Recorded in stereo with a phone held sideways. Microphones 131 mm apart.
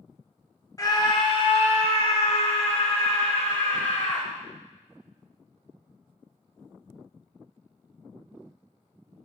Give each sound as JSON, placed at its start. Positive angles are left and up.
{"t": 0.8, "sound": "a scream", "side_deg": 25, "distance_m": 1.4}